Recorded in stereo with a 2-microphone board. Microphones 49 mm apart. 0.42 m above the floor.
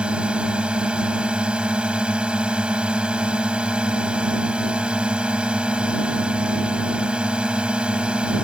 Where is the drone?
20° right (ahead or behind).